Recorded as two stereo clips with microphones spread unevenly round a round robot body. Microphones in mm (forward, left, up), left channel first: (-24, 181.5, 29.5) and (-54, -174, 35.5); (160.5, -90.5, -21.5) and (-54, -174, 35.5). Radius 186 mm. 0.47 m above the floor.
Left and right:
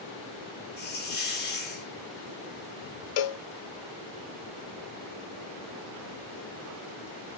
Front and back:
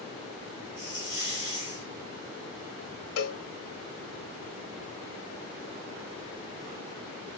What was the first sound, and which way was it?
A hiss, 140° left.